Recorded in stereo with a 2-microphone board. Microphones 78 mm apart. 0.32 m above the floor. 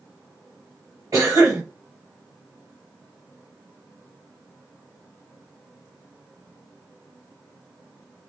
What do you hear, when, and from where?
1.1 s a cough: 50° right (ahead or behind), 1.9 m